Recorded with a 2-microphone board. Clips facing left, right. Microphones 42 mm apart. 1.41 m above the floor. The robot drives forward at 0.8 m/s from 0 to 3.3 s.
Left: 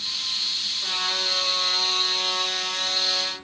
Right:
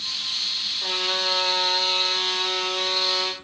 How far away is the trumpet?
About 7.5 m.